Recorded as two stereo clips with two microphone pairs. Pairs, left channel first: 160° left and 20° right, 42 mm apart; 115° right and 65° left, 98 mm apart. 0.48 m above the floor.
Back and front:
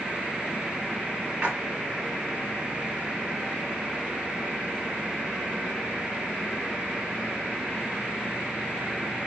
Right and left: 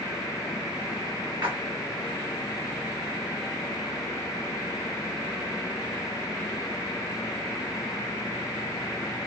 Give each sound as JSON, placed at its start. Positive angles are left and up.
{"t": 1.4, "sound": "a splash", "azimuth_deg": 40, "distance_m": 1.5}